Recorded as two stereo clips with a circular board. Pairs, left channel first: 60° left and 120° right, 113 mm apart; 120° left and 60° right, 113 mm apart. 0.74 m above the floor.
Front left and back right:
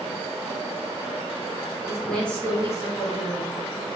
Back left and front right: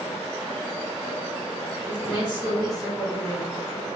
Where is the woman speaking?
150° left, 1.4 m; by 3.6 s 45° left, 1.3 m.